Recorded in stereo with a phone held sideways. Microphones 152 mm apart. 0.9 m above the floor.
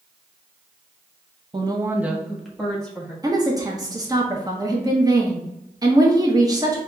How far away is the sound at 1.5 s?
About 0.6 m.